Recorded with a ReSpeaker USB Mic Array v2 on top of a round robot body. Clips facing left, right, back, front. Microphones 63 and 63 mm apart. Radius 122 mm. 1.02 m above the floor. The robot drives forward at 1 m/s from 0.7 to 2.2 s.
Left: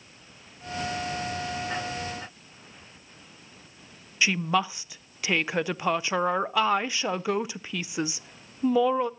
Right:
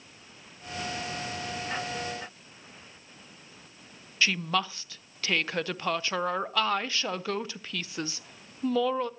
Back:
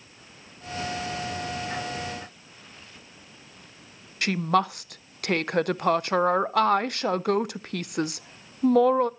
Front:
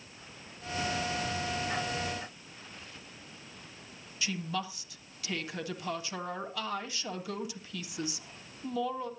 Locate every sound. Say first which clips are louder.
4.2 s a woman speaking: left 3 dB, back 12 dB; 165° left, 0.6 m